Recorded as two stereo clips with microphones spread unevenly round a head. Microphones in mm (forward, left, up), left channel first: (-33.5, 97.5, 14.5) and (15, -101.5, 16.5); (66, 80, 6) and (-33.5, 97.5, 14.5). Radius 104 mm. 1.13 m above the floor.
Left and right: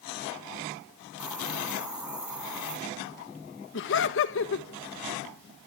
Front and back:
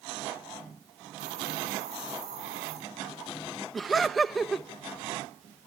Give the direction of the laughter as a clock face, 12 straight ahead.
9 o'clock.